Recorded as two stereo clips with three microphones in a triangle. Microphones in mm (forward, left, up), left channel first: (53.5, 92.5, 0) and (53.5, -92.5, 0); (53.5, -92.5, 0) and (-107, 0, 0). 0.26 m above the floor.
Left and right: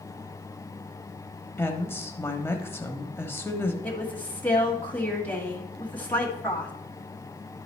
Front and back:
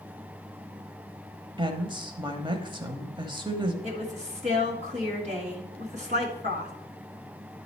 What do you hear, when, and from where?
1.6 s a woman speaking: 150° left, 1.0 m
3.8 s a woman speaking: 170° left, 1.8 m